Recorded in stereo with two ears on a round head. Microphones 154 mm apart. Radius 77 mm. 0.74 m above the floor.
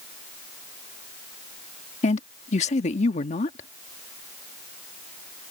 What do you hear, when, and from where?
2.0 s a woman speaking: 40° left (ahead or behind)